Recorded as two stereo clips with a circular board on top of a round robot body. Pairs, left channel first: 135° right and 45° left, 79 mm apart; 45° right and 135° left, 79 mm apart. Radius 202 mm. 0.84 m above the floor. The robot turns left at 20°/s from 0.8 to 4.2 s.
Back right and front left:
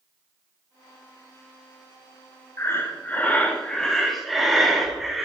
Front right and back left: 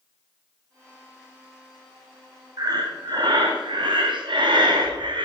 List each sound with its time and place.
2.6 s breathing: 170° left, 1.4 m; by 5.3 s 135° left, 1.4 m